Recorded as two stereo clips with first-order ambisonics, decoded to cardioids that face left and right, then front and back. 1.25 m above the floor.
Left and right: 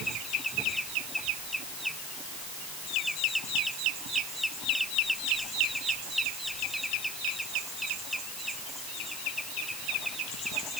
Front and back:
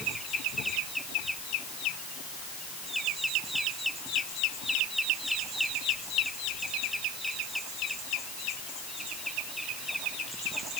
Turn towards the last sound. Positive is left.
No sound to turn to.